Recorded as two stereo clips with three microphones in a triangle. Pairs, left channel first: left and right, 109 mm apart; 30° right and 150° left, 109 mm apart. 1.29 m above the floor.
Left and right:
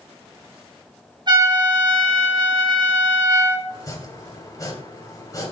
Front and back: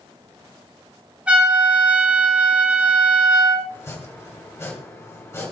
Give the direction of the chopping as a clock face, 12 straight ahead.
11 o'clock.